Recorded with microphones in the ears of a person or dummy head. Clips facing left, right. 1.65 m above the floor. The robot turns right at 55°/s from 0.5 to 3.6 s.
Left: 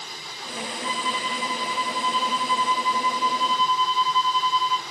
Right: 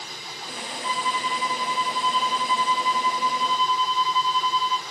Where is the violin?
175° right, 1.2 m; by 4.8 s 20° right, 1.2 m.